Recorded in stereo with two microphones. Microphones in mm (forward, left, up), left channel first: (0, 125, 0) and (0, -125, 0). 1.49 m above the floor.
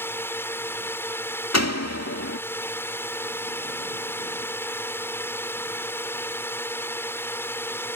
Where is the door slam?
75° left (ahead or behind).